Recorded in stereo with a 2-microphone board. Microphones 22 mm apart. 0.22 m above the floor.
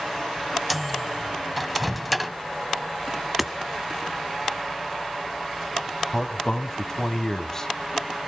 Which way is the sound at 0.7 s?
5° left (ahead or behind).